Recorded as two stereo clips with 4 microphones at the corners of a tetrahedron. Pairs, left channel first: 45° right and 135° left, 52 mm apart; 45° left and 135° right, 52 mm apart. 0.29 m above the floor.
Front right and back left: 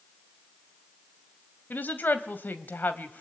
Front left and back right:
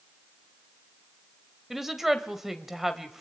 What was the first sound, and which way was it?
A woman speaking, 55° right.